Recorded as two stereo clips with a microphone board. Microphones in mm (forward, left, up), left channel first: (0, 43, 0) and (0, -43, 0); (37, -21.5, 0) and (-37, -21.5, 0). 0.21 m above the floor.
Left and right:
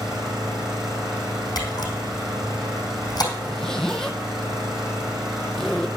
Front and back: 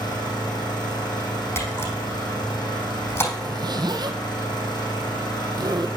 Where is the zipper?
175° left, 1.3 m.